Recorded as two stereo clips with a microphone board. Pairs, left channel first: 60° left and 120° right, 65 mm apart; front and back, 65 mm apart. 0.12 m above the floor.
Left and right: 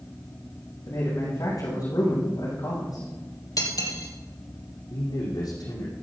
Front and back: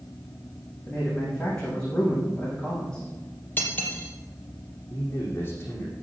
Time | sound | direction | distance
0.9 | a man speaking | 80° left | 7 m
3.6 | cutlery clinking | 55° left | 2.5 m
4.9 | a man speaking | 60° left | 5 m